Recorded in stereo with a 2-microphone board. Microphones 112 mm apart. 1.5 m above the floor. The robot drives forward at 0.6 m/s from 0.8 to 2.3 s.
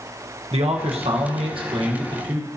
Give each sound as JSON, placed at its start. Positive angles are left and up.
{"t": 0.5, "sound": "a man speaking", "side_deg": -75, "distance_m": 1.1}